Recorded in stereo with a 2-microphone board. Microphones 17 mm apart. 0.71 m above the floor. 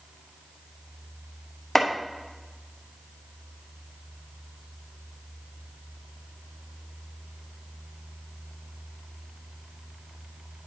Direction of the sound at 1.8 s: 20° left (ahead or behind).